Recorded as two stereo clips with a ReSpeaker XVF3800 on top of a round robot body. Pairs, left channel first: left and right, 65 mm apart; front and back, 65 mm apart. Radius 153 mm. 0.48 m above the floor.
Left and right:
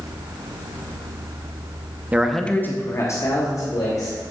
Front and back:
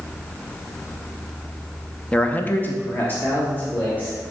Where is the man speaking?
55° right, 0.8 m; by 4.2 s 65° left, 2.5 m.